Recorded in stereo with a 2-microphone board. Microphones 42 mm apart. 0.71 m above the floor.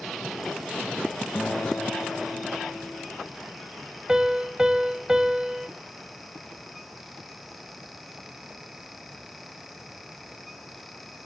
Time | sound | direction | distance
1.4 | a guitar | 85° left | 2.5 m
4.1 | a piano | 15° right (ahead or behind) | 0.9 m